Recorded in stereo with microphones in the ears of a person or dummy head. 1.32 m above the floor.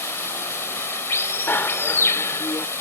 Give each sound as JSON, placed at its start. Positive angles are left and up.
{"t": 0.0, "sound": "running water", "side_deg": 15}
{"t": 1.5, "sound": "a bicycle bell", "side_deg": 10}